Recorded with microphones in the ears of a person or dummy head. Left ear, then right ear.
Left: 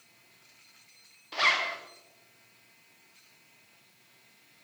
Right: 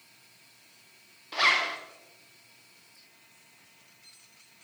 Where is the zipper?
Centre (ahead or behind), 0.8 m.